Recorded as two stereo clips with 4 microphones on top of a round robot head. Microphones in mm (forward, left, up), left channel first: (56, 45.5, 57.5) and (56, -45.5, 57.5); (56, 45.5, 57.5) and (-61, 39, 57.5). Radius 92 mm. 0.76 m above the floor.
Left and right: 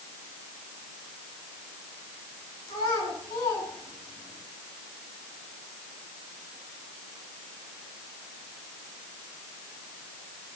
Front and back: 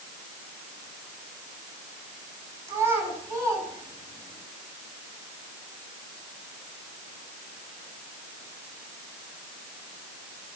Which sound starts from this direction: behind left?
A child speaking, at 2.7 s.